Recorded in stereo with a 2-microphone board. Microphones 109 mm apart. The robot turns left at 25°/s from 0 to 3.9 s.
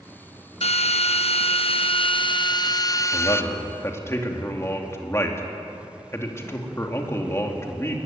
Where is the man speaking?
45° left (ahead or behind), 2.5 m; by 8.0 s 25° left (ahead or behind), 2.5 m.